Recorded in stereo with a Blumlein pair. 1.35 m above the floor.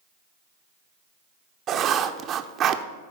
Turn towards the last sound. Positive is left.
turn(degrees=-30)